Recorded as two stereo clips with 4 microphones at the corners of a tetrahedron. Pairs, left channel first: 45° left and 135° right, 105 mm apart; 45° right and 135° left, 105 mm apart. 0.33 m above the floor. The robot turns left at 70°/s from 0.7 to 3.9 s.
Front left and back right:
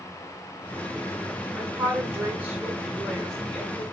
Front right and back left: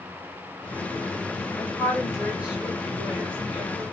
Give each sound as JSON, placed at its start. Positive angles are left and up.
{"t": 1.6, "sound": "a woman speaking", "azimuth_deg": -115, "distance_m": 1.0}